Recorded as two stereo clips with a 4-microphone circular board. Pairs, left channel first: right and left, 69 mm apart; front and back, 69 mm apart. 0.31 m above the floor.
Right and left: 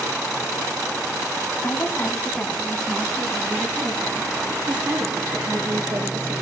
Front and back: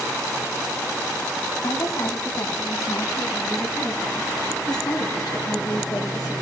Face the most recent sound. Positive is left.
turn(degrees=30)